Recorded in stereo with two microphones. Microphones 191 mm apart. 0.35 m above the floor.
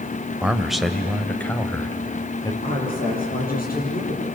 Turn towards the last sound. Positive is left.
turn(degrees=45)  # may be behind; listen again after turning